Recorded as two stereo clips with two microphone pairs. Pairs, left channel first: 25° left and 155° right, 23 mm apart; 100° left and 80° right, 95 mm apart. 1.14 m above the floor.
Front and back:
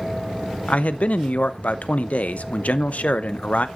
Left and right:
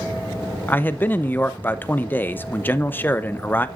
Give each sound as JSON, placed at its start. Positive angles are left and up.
{"t": 0.7, "sound": "a man speaking", "azimuth_deg": 35, "distance_m": 0.6}